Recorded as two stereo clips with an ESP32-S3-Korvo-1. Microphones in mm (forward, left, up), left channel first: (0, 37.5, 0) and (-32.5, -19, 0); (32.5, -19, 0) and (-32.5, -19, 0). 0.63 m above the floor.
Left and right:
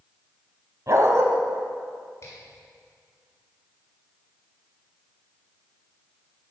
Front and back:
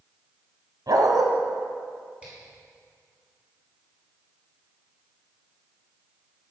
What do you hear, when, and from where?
0.9 s a dog barking: 160° right, 1.7 m
2.2 s a finger snap: 105° left, 6 m